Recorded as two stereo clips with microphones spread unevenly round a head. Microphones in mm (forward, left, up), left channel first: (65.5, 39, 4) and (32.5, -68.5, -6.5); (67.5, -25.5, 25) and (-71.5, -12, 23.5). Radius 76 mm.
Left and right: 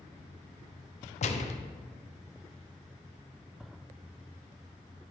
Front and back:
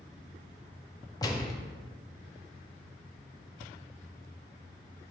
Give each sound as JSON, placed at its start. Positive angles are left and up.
{"t": 1.2, "sound": "a gunshot", "azimuth_deg": 60, "distance_m": 0.6}